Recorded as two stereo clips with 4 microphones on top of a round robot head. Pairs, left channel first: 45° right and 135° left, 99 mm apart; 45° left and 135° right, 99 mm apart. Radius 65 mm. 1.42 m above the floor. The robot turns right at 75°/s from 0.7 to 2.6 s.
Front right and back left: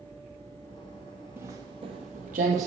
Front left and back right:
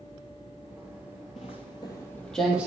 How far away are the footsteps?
About 2 m.